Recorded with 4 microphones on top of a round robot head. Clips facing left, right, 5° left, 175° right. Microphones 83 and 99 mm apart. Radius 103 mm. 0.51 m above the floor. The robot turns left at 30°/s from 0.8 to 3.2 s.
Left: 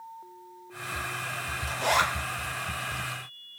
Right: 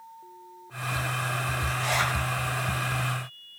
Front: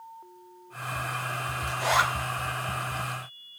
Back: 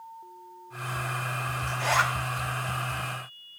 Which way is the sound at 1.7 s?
85° left.